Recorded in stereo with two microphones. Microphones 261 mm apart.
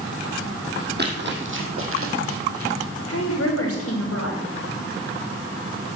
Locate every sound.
1.0 s running footsteps: 40° right (ahead or behind), 2.5 m; by 2.7 s 60° right (ahead or behind), 3.5 m
3.1 s a woman speaking: 60° left (ahead or behind), 4.5 m